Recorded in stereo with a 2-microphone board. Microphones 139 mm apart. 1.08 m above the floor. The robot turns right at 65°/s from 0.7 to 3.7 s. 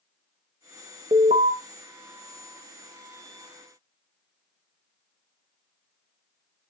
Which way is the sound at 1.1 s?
45° right (ahead or behind).